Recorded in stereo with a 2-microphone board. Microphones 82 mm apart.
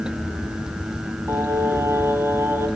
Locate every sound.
1.3 s singing: 35° right (ahead or behind), 1.5 m